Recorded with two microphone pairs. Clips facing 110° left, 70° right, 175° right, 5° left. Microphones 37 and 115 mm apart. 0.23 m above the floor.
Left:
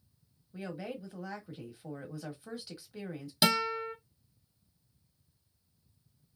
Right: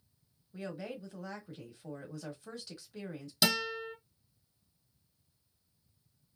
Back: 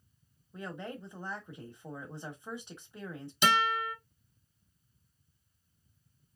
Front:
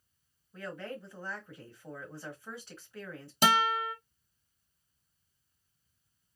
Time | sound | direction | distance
0.5 | a woman speaking | 155° left | 1.3 m
3.4 | a guitar | 45° left | 1.4 m